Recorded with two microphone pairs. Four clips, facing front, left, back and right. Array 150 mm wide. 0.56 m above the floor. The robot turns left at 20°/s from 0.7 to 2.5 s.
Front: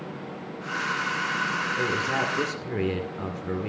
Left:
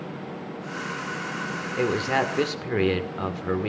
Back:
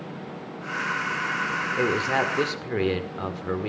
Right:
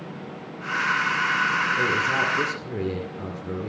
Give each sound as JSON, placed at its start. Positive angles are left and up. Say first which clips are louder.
{"t": 1.8, "sound": "a man speaking", "louder": "even, back 5 dB", "azimuth_deg": 130, "distance_m": 1.9}